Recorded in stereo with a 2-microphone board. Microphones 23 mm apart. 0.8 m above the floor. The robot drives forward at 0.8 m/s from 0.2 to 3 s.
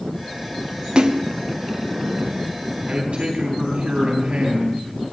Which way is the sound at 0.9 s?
50° right (ahead or behind).